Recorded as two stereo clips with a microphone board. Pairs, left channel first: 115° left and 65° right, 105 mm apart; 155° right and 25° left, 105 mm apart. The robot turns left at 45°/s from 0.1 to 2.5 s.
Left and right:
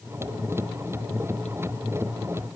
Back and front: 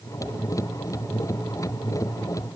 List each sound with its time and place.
Only background noise.